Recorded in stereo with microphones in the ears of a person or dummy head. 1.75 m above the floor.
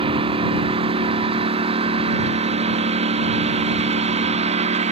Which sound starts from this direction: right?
A lawn mower, at 0.0 s.